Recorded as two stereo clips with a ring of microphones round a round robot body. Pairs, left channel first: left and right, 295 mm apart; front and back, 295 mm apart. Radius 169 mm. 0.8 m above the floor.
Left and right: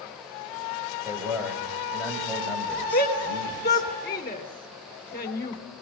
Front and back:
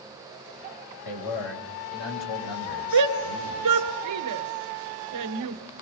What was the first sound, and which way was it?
A man speaking, 10° right.